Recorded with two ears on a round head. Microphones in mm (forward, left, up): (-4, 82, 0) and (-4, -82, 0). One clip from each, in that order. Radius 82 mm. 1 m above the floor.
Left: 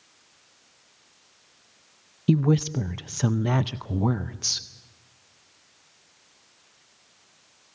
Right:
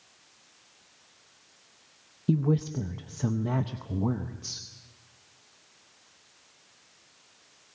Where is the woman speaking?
60° left (ahead or behind), 0.5 m.